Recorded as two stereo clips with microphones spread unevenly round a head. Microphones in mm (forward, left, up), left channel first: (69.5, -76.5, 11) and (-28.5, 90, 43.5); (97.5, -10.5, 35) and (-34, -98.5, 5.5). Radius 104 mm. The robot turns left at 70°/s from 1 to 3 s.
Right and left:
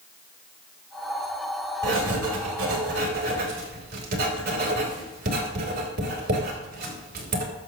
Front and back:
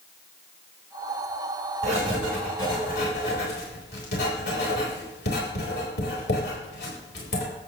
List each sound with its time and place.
1.8 s writing: 160° left, 4.5 m; by 7.4 s 80° left, 4.5 m